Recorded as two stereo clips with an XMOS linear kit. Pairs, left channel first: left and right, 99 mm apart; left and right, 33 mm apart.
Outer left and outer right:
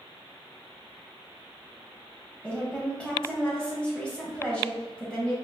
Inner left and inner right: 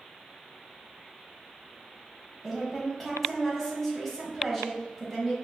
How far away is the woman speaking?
About 1.0 m.